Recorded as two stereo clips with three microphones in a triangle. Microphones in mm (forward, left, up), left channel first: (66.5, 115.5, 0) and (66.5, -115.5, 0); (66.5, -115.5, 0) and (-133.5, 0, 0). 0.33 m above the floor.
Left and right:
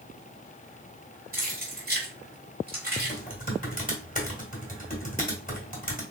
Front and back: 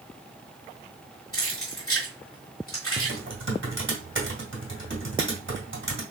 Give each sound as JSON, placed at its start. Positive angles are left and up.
{"t": 1.3, "sound": "keys jangling", "azimuth_deg": -40, "distance_m": 2.5}
{"t": 3.0, "sound": "typing on a keyboard", "azimuth_deg": 135, "distance_m": 2.5}